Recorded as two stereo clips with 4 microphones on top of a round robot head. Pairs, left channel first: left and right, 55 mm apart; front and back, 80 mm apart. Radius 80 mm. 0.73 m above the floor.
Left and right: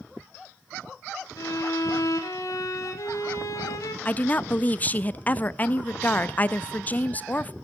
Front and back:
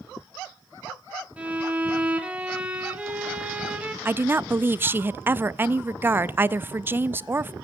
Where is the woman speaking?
130° left, 0.5 m.